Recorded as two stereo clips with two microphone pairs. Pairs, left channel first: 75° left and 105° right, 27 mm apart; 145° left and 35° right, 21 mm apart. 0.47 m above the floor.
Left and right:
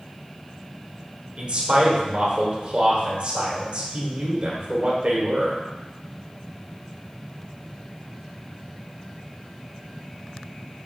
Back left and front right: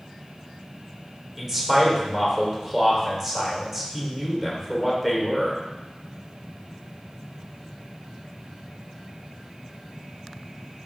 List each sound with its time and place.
1.4 s a man speaking: 115° right, 1.3 m